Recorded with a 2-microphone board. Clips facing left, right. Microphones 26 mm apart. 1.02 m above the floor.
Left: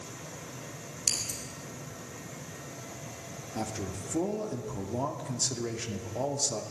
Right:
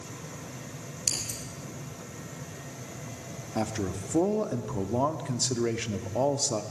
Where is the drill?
No drill in this recording.